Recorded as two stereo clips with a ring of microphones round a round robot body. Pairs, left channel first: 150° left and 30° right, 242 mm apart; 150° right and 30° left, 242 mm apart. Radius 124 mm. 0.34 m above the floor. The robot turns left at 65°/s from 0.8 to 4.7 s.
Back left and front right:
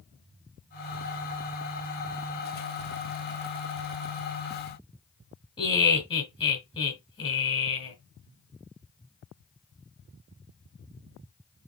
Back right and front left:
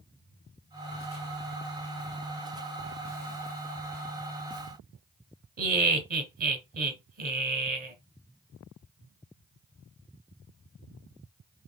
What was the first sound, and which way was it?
Laughter, 80° left.